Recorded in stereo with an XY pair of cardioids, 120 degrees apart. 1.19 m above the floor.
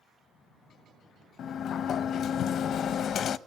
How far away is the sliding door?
About 0.6 m.